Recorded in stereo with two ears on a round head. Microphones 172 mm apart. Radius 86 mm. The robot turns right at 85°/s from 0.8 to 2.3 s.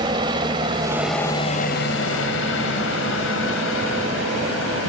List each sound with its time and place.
0.0 s a helicopter: 25° right (ahead or behind); by 4.9 s 75° left (ahead or behind)